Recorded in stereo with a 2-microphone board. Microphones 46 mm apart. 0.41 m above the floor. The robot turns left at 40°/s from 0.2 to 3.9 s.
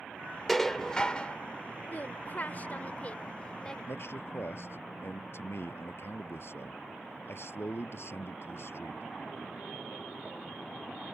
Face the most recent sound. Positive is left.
turn(degrees=65)  # may be behind; listen again after turning